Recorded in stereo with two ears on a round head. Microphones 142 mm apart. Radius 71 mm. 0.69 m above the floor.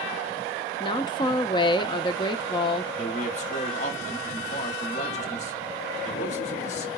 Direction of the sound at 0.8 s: 30° left (ahead or behind).